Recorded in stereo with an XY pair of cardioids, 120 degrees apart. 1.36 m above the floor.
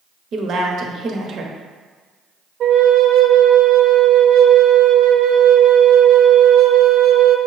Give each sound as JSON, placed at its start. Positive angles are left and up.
{"t": 0.3, "sound": "a woman speaking", "azimuth_deg": -50, "distance_m": 0.9}
{"t": 2.6, "sound": "a flute", "azimuth_deg": -55, "distance_m": 0.5}